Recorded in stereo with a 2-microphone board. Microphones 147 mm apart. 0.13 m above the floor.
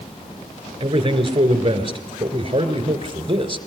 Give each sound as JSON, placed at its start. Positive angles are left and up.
{"t": 0.8, "sound": "a man speaking", "side_deg": -35, "distance_m": 2.5}